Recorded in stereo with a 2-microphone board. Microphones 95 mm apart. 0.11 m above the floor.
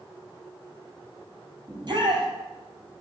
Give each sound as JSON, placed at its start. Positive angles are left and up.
{"t": 1.7, "sound": "a shout", "side_deg": -50, "distance_m": 3.0}